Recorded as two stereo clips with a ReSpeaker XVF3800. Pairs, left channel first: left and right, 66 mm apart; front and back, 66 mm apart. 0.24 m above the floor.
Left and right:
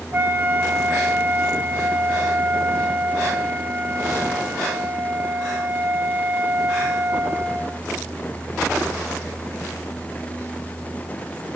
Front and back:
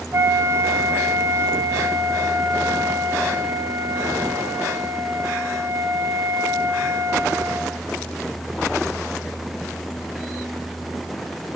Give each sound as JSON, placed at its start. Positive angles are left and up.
{"t": 0.1, "sound": "a flute", "azimuth_deg": -140, "distance_m": 0.8}